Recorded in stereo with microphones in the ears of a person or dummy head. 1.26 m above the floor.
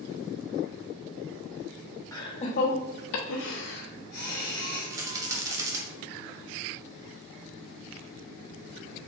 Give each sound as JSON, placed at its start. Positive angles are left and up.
{"t": 2.1, "sound": "laughter", "side_deg": 15, "distance_m": 0.7}
{"t": 4.9, "sound": "a rattle", "side_deg": -15, "distance_m": 0.7}